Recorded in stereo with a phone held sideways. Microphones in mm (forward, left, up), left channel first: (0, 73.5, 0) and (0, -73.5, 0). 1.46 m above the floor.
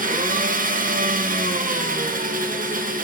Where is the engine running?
65° right (ahead or behind), 1.0 m.